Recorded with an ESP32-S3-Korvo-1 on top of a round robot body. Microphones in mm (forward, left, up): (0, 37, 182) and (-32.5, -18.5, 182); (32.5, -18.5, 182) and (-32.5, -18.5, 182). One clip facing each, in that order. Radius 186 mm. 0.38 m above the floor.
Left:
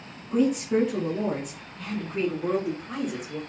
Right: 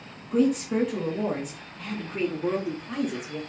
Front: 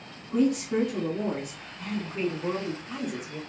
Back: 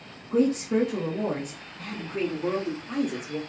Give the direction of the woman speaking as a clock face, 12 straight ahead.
7 o'clock.